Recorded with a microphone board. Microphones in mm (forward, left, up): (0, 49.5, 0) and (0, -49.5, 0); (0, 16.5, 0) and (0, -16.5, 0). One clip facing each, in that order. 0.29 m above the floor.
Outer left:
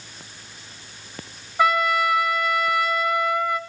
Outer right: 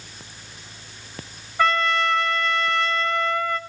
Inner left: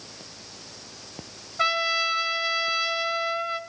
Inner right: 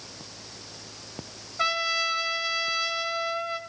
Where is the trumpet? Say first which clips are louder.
Outer left 1 dB, inner left 2 dB; 10° left (ahead or behind), 1.6 m.